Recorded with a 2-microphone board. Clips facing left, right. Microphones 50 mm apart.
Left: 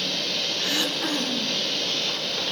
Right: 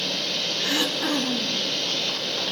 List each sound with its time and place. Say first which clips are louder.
0.6 s throat clearing: right 3 dB; 20° right (ahead or behind), 3.5 m